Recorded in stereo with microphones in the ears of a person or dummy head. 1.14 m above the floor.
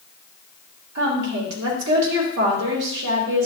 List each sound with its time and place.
0.9 s a woman speaking: 70° right (ahead or behind), 3 m